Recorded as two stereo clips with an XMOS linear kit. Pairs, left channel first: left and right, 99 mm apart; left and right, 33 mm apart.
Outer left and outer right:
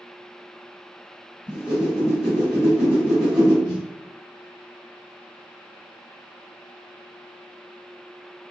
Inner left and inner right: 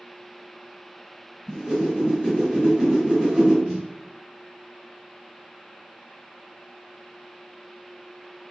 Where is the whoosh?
15° right (ahead or behind), 1.5 m.